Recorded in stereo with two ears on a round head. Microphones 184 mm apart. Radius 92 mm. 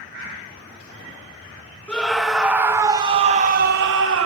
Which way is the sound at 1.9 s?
5° left (ahead or behind).